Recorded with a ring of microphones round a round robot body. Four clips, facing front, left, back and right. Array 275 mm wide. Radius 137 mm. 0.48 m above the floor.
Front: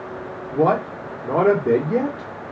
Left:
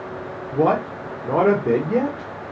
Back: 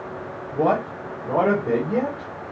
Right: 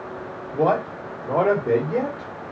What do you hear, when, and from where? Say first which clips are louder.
0.5 s a man speaking: left 2 dB, front 2 dB; 50° left, 1.5 m